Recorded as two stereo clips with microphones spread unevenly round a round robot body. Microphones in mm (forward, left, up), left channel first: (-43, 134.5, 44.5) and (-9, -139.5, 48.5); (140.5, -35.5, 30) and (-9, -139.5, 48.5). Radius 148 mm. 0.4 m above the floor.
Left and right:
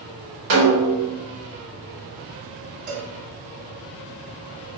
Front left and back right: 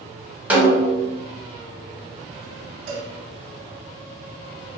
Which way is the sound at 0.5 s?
65° right.